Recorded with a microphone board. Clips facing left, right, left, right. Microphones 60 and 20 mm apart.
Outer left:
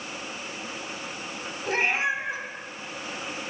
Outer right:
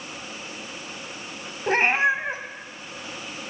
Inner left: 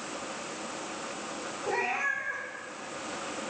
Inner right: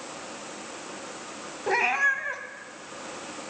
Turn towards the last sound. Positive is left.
turn(degrees=-45)  # may be behind; listen again after turning